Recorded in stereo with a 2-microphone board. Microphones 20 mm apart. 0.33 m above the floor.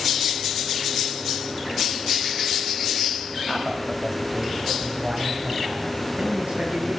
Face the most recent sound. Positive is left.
turn(degrees=-70)  # may be behind; listen again after turning